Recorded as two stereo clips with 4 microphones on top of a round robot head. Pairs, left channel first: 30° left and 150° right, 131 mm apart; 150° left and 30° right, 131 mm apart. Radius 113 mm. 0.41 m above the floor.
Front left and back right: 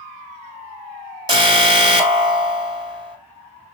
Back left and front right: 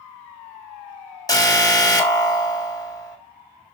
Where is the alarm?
175° right, 2.5 m.